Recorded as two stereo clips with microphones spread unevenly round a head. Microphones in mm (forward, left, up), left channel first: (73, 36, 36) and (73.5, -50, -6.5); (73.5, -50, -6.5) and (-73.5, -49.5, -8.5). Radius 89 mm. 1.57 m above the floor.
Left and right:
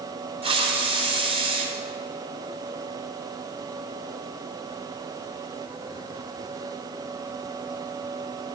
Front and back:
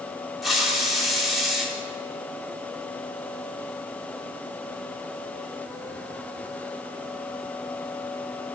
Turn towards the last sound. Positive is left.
turn(degrees=-90)